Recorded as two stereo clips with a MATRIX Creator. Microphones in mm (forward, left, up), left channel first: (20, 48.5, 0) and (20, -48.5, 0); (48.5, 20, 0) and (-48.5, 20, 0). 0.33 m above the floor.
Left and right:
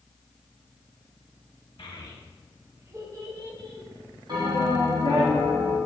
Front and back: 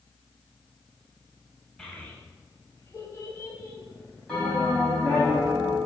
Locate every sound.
1.8 s a child speaking: 80° left, 0.8 m; by 5.3 s 65° right, 3 m
4.3 s a bell: 80° right, 2.0 m